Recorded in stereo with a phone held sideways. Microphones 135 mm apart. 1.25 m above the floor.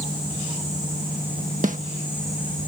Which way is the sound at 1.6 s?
75° right (ahead or behind).